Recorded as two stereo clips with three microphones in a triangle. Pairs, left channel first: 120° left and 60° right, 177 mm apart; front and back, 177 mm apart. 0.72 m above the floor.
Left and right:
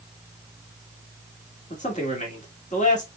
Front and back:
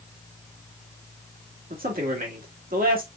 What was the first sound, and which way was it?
A man speaking, 155° left.